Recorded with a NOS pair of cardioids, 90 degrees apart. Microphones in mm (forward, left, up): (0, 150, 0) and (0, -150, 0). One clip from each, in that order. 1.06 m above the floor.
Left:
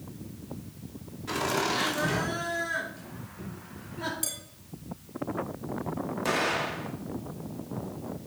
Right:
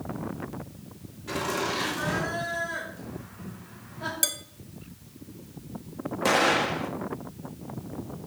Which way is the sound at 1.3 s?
20° left.